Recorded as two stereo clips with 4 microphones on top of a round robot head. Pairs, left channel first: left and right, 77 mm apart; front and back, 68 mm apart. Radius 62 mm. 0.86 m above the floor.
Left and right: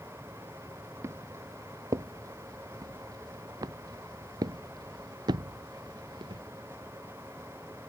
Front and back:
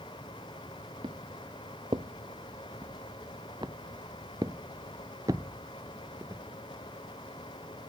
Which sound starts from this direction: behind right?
Footsteps, at 1.0 s.